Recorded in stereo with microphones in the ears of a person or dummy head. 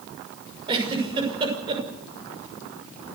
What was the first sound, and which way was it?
A giggle, 25° right (ahead or behind).